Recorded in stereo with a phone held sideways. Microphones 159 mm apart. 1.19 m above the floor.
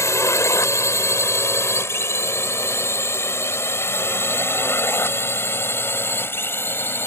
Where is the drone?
15° left (ahead or behind).